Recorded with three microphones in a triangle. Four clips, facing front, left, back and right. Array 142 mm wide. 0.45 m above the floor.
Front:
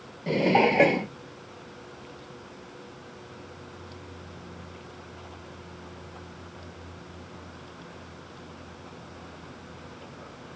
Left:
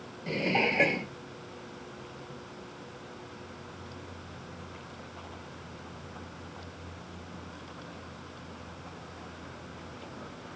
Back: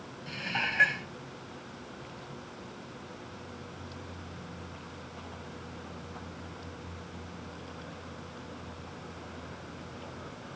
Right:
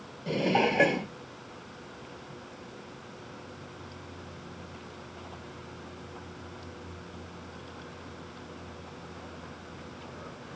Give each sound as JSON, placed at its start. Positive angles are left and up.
{"t": 0.3, "sound": "dishes clattering", "azimuth_deg": -10}